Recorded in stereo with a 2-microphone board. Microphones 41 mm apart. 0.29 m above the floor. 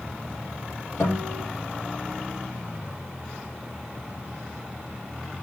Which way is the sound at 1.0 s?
80° left.